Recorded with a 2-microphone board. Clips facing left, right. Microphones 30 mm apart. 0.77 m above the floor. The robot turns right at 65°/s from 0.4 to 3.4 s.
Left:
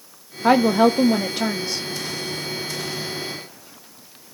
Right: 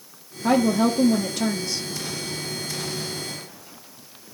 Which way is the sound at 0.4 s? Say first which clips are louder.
Left 4 dB; 80° left.